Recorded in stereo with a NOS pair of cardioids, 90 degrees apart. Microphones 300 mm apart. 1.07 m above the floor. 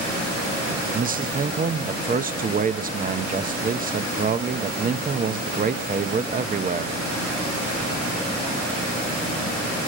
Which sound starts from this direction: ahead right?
A man speaking, at 0.9 s.